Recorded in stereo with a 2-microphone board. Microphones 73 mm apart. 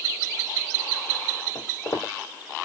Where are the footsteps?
40° left (ahead or behind), 1.6 m.